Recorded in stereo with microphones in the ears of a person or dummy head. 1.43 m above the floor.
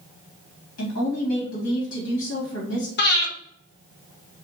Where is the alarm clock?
I don't hear an alarm clock.